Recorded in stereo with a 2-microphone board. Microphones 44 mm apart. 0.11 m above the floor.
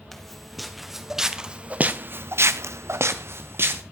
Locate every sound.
0.1 s footsteps: 5° left (ahead or behind), 2.5 m; by 3.8 s 55° right (ahead or behind), 1.8 m